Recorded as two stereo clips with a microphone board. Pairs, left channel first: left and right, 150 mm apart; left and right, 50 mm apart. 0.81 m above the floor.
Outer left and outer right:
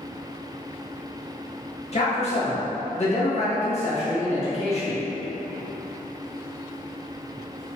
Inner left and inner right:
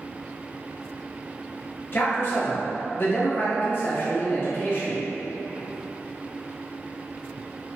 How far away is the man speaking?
About 1.1 m.